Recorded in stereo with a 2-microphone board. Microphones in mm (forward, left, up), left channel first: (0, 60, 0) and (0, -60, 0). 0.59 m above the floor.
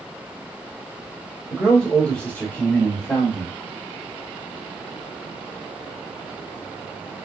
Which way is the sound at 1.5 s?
Centre (ahead or behind).